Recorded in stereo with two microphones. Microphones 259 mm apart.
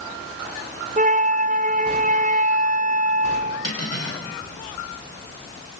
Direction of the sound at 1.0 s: 30° right (ahead or behind).